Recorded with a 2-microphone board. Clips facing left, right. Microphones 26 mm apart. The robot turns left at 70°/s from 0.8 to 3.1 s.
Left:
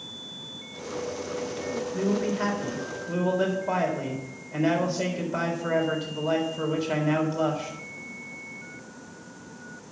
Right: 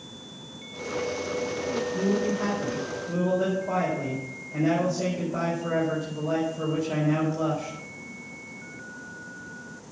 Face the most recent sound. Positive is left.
turn(degrees=55)